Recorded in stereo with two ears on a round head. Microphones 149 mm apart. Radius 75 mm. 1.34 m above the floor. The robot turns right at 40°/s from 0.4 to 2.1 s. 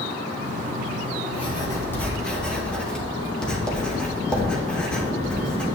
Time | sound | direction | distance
1.3 | writing | 35° left (ahead or behind) | 1.9 m